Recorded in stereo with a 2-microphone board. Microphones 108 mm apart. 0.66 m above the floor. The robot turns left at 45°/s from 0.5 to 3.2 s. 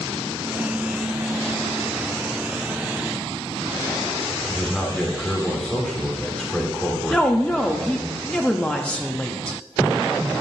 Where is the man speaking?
10° left (ahead or behind), 1.5 m.